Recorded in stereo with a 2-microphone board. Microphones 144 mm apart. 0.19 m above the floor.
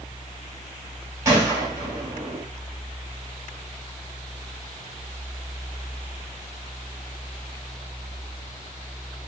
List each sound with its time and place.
1.2 s a gunshot: 25° right (ahead or behind), 2.5 m